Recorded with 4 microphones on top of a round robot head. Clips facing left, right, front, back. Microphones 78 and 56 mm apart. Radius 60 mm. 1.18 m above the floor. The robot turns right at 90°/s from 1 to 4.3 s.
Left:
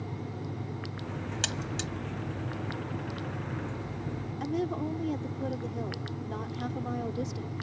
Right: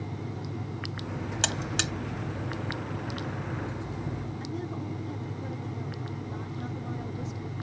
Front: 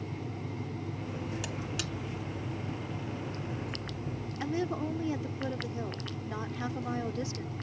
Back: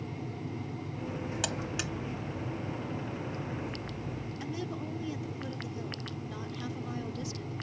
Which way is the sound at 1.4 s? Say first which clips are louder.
Right 3 dB, back 2 dB; 140° right.